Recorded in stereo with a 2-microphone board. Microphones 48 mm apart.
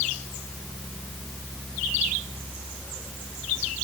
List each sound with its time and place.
Only background noise.